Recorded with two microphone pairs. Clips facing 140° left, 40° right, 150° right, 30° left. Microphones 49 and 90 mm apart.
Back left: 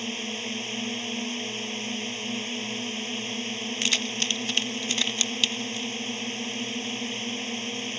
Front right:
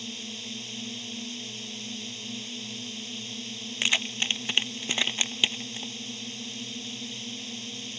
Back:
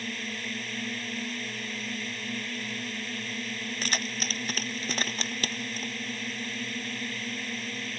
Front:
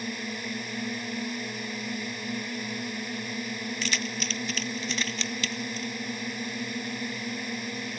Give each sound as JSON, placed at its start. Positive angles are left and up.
{"t": 0.0, "sound": "a drone", "azimuth_deg": 105}
{"t": 3.8, "sound": "keys jangling", "azimuth_deg": -110}